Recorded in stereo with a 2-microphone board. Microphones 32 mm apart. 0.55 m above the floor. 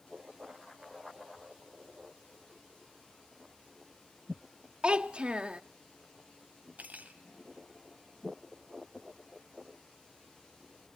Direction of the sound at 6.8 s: 55° right (ahead or behind).